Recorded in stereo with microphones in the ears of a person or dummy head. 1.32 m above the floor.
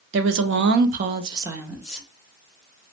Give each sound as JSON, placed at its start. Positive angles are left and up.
{"t": 0.1, "sound": "a woman speaking", "side_deg": -60, "distance_m": 0.6}